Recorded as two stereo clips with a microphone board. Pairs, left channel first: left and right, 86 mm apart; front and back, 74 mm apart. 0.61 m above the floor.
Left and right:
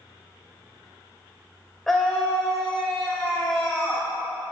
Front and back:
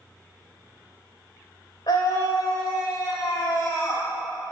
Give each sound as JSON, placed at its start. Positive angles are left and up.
{"t": 1.9, "sound": "a scream", "azimuth_deg": 5, "distance_m": 2.0}